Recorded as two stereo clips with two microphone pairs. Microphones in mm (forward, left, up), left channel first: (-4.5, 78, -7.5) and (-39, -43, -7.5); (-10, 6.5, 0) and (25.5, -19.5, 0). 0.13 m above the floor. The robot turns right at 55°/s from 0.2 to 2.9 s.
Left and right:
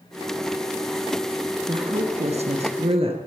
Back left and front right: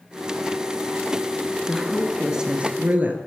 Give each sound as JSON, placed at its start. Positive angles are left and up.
{"t": 1.7, "sound": "a woman speaking", "azimuth_deg": -145, "distance_m": 2.5}